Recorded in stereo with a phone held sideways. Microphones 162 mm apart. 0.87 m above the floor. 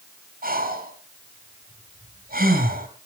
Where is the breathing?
60° right (ahead or behind), 2.5 m.